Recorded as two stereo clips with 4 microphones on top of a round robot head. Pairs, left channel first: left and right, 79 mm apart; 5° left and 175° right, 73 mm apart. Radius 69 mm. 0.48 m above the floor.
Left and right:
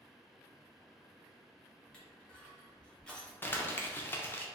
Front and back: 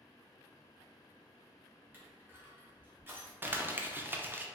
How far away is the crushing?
About 1.5 m.